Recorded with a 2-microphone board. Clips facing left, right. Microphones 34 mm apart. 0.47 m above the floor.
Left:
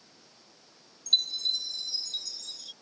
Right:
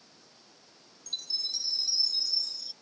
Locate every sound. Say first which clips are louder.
1.1 s a chime: left 10 dB; 55° left (ahead or behind)